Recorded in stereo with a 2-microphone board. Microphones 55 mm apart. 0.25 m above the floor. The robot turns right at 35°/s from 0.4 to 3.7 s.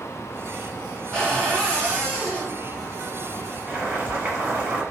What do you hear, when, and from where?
1.1 s a cupboard door: 15° left (ahead or behind), 1.7 m; by 2.5 s 25° left (ahead or behind), 1.7 m
3.7 s boiling: 30° right (ahead or behind), 1.7 m